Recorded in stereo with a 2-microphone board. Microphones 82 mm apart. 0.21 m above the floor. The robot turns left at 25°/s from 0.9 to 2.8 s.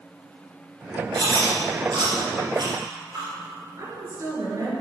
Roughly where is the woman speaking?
Right.